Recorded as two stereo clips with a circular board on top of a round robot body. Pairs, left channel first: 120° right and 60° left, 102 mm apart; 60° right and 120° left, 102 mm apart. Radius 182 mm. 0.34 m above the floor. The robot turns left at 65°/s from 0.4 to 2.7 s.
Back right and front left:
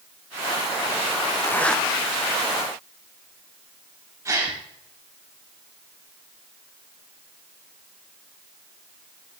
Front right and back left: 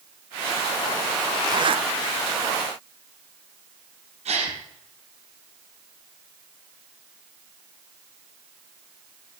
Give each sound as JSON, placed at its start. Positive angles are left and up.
{"t": 1.4, "sound": "a zipper", "azimuth_deg": 175, "distance_m": 0.7}
{"t": 4.2, "sound": "a gasp", "azimuth_deg": 120, "distance_m": 3.5}